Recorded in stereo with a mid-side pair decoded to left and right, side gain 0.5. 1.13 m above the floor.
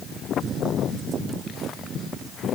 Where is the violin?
I don't hear a violin.